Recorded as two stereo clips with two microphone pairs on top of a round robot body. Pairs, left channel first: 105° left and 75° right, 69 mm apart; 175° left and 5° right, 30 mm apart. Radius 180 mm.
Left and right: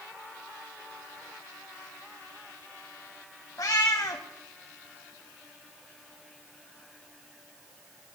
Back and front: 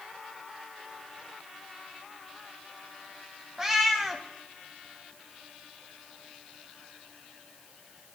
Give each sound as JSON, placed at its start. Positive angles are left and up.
{"t": 3.6, "sound": "a cat meowing", "azimuth_deg": 70, "distance_m": 0.5}